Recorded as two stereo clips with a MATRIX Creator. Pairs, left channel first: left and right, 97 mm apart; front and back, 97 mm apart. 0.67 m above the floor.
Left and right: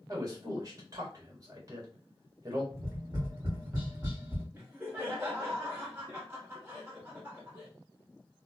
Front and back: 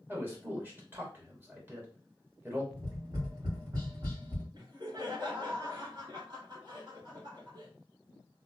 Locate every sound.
0.1 s a man speaking: 120° right, 1.5 m
2.7 s tapping: 140° right, 2 m
4.5 s laughter: 155° right, 1.7 m